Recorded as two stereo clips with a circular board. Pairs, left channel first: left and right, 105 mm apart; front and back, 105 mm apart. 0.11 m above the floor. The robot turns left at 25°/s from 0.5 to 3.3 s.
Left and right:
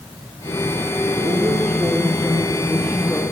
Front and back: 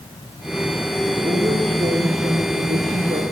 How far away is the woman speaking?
About 4.5 m.